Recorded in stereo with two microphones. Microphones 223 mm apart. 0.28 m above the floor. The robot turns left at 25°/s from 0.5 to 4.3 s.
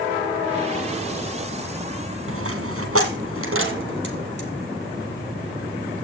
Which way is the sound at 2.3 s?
75° right (ahead or behind).